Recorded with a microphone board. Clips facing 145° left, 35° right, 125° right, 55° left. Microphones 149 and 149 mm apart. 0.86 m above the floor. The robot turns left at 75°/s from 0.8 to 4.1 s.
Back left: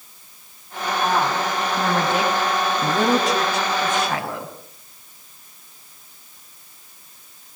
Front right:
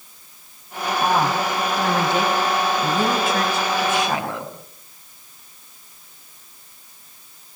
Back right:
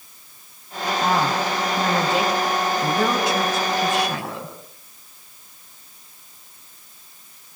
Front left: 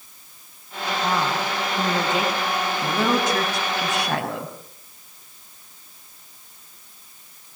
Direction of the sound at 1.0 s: 95° right.